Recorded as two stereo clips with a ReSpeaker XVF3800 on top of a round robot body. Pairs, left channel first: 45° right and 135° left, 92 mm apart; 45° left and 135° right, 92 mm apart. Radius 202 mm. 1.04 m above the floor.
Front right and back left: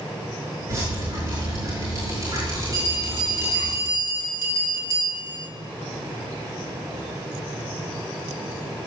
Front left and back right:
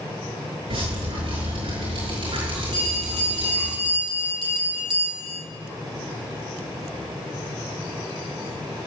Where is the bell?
170° right, 4.5 m.